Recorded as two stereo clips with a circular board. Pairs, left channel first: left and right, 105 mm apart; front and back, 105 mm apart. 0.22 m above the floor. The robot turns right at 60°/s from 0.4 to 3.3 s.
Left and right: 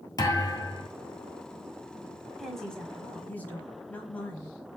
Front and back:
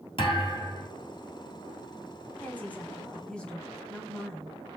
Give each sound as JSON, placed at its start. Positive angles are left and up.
{"t": 0.2, "sound": "a thud", "azimuth_deg": 35, "distance_m": 1.5}
{"t": 2.4, "sound": "a woman speaking", "azimuth_deg": 5, "distance_m": 1.2}